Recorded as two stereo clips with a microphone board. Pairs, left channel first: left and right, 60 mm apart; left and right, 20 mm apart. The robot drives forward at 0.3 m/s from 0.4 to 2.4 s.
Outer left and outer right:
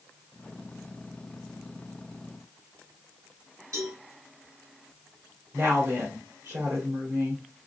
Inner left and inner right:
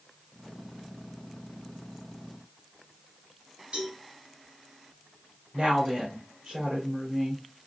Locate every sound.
3.7 s a cowbell: 70° right (ahead or behind), 2.5 m
5.5 s a woman speaking: 55° right (ahead or behind), 1.5 m